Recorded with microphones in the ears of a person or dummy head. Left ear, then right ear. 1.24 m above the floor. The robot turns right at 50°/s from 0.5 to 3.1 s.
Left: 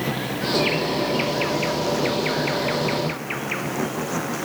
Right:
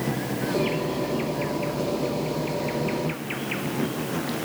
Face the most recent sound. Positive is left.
turn(degrees=150)